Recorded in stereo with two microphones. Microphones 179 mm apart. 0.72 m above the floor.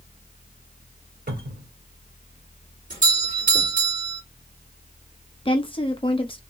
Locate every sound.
1.3 s a cupboard door: 55° right (ahead or behind), 2 m
2.9 s a doorbell: 45° right (ahead or behind), 2.5 m
5.5 s a woman speaking: 30° left (ahead or behind), 1.0 m